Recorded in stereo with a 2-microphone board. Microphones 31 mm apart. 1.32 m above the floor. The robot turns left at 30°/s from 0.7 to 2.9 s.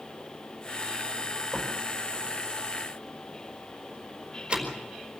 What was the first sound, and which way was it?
A door slam, 5° left (ahead or behind).